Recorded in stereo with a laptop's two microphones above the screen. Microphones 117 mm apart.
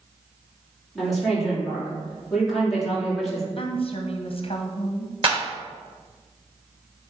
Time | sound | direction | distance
0.9 | a woman speaking | centre (ahead or behind) | 3 m
3.6 | a woman speaking | 50° left (ahead or behind) | 0.9 m
5.2 | a clap | 50° right (ahead or behind) | 2.5 m